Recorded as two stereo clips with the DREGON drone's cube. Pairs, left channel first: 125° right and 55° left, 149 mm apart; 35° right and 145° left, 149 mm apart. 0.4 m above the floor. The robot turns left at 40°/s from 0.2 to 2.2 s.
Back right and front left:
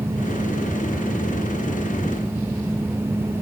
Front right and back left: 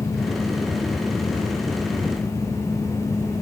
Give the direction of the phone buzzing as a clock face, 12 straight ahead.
No phone buzzing in this recording.